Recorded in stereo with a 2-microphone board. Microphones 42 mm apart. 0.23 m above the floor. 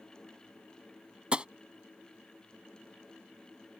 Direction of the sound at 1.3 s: 30° right (ahead or behind).